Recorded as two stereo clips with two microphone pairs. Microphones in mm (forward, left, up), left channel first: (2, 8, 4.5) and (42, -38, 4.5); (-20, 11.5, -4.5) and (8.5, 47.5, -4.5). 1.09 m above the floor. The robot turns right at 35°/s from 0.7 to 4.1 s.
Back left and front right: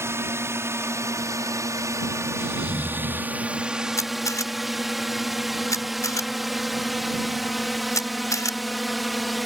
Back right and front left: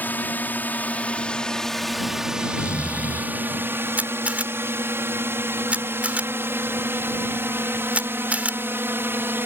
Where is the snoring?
125° right; by 3.4 s 90° right.